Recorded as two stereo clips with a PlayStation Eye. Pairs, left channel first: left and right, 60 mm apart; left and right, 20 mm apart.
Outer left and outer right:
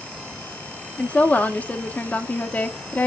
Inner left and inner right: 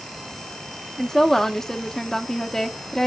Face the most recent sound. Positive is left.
turn(degrees=25)  # may be behind; listen again after turning